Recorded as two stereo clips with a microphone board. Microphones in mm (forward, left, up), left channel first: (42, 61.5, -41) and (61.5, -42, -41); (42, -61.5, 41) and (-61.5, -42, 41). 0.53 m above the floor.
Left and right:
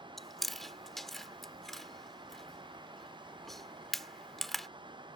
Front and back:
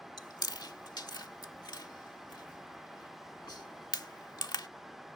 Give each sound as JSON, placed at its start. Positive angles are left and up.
{"t": 0.2, "sound": "chewing", "azimuth_deg": 15}